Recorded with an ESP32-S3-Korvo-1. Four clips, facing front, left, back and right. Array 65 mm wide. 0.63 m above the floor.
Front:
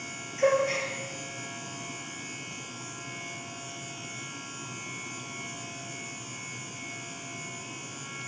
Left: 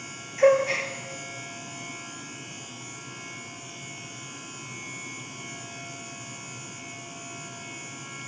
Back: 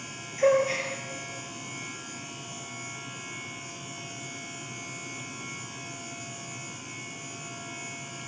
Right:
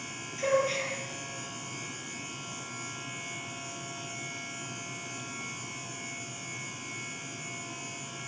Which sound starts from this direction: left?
A gasp, at 0.4 s.